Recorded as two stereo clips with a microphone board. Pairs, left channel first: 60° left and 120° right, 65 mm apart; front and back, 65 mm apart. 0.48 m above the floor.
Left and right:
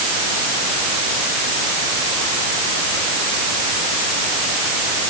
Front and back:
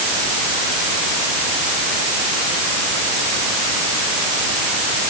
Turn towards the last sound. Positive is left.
No sound to turn to.